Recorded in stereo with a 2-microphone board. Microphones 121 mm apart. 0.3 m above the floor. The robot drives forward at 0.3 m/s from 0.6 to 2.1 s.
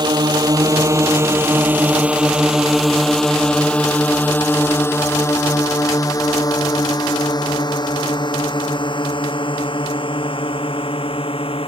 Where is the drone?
35° right (ahead or behind); by 11.7 s 45° left (ahead or behind).